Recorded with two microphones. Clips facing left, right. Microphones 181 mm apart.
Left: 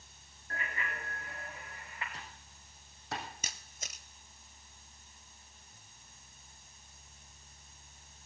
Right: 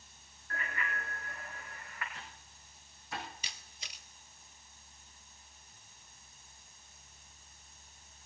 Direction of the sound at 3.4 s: 50° left (ahead or behind).